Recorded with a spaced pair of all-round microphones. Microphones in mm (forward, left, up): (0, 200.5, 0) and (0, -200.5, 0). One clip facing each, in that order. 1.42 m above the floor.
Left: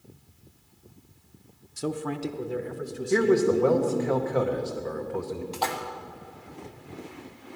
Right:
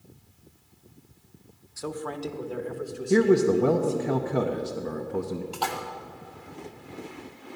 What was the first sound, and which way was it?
A man speaking, 50° left (ahead or behind).